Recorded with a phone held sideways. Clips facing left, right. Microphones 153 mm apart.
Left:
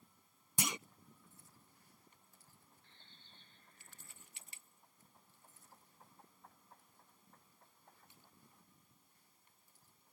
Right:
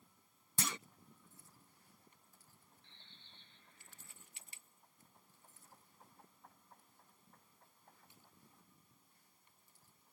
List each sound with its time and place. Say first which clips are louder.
0.6 s a clunk: left 2 dB; 15° left (ahead or behind)
2.8 s a bird: even; 40° left (ahead or behind)